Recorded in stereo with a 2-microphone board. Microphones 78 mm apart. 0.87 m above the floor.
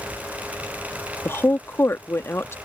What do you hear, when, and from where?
1.2 s a woman speaking: 30° left (ahead or behind)